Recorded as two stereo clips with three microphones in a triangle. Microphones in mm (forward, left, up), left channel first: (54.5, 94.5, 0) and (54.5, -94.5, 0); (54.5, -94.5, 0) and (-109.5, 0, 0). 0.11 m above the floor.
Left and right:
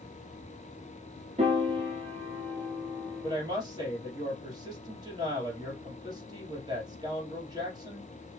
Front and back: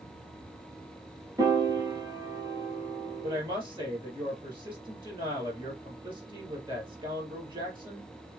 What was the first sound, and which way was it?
A piano, 140° right.